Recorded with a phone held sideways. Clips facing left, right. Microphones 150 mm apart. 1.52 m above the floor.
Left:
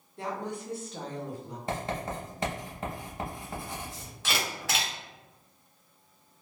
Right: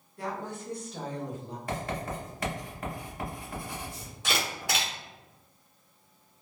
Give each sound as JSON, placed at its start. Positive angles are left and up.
{"t": 0.2, "sound": "a woman speaking", "side_deg": 25, "distance_m": 0.8}
{"t": 1.7, "sound": "writing", "side_deg": 25, "distance_m": 0.8}
{"t": 4.2, "sound": "a camera shutter", "side_deg": -15, "distance_m": 1.5}